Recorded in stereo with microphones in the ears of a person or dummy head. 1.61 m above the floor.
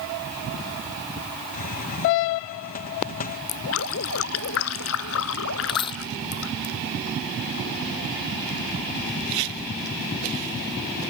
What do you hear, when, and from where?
1.5 s a hiss: 45° left (ahead or behind)
3.5 s dripping: 70° left (ahead or behind)
5.7 s a dropped coin: 25° left (ahead or behind)